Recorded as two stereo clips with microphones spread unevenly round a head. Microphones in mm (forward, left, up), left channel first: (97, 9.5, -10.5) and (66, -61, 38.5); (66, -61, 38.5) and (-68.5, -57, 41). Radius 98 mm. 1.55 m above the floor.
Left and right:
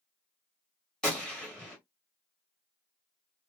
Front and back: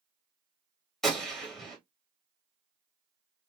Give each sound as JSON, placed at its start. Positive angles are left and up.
{"t": 1.0, "sound": "a gunshot", "azimuth_deg": -90, "distance_m": 1.1}